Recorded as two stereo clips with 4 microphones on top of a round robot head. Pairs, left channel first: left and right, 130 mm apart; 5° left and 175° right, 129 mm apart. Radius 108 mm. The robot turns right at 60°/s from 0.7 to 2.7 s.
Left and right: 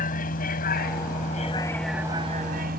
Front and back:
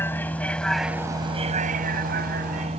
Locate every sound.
0.0 s a vehicle: 80° left; by 2.8 s 115° right